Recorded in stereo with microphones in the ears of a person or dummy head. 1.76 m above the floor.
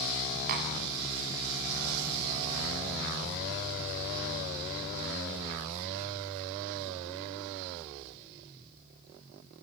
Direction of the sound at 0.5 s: 55° right (ahead or behind).